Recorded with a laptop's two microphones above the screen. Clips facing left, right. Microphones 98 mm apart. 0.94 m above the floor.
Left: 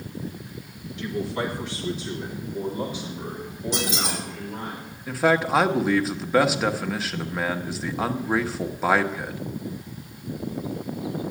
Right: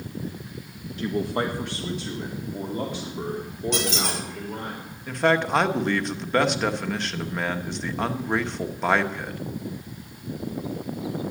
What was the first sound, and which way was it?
A man speaking, 40° right (ahead or behind).